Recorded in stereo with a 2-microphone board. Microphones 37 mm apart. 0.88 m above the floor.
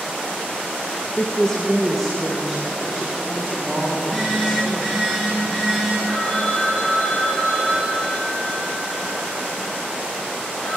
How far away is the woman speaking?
About 0.7 m.